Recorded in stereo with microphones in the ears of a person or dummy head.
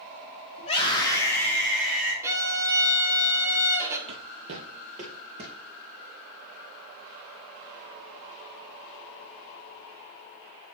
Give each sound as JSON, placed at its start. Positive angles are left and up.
{"t": 0.6, "sound": "a scream", "side_deg": 35, "distance_m": 2.5}
{"t": 2.2, "sound": "a violin", "side_deg": -15, "distance_m": 1.5}
{"t": 4.1, "sound": "footsteps", "side_deg": -30, "distance_m": 1.7}